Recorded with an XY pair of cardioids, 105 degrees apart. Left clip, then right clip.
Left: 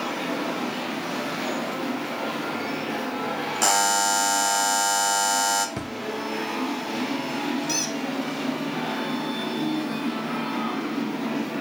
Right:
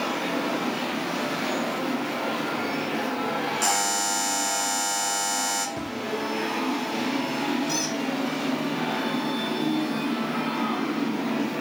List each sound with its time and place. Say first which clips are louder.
3.6 s a buzzer: left 6 dB; 40° left, 1.1 m
5.8 s a drawer: even; 60° left, 0.8 m
7.7 s a squeak: left 1 dB; 55° left, 2 m